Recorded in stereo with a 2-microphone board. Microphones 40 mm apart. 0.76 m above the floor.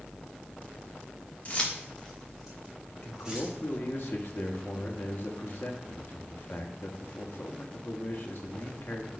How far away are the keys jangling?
About 1.1 m.